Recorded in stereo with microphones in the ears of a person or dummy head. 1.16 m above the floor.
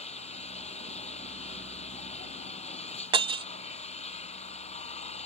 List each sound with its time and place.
0.0 s an engine running: 35° left (ahead or behind)
3.1 s breaking glass: 25° right (ahead or behind)